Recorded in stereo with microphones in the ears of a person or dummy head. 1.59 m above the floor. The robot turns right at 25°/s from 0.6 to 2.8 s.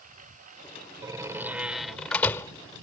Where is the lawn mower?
50° right (ahead or behind); by 2.8 s 75° right (ahead or behind).